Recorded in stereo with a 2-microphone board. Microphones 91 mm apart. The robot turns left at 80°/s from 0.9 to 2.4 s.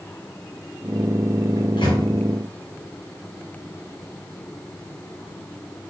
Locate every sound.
1.6 s a microwave: 50° left (ahead or behind), 4.5 m; by 2.0 s 85° left, 4.5 m